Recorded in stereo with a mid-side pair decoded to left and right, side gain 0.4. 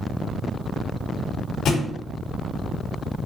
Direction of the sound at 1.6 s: 70° left.